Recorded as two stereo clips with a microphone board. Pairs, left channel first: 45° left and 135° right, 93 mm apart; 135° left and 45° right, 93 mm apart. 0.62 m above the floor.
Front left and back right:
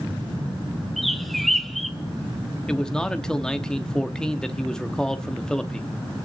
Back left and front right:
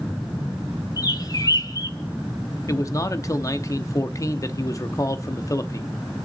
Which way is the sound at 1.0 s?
130° left.